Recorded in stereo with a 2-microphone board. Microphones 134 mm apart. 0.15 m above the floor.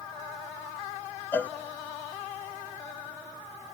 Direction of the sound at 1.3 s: 15° left (ahead or behind).